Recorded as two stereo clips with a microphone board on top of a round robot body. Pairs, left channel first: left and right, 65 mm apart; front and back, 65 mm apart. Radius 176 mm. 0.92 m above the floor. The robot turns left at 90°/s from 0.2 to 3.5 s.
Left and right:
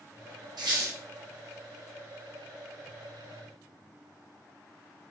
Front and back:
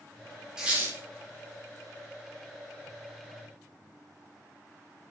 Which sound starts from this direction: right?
A squeak, at 0.6 s.